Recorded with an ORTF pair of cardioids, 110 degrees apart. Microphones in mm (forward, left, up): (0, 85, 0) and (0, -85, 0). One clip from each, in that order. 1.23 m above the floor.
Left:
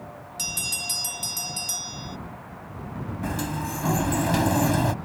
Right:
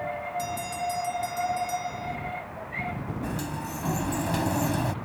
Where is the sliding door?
25° left.